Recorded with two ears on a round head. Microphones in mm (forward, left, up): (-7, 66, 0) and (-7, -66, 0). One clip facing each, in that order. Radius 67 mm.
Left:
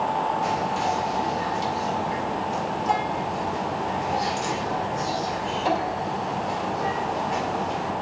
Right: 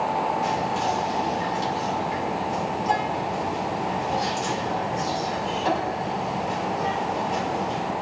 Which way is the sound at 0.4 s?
Centre (ahead or behind).